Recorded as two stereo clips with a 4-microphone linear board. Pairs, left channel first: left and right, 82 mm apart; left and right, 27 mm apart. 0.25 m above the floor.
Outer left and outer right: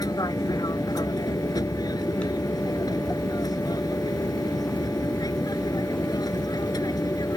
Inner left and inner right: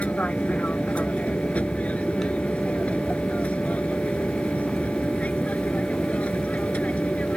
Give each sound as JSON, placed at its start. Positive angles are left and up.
{"t": 0.0, "sound": "an aircraft", "side_deg": 50}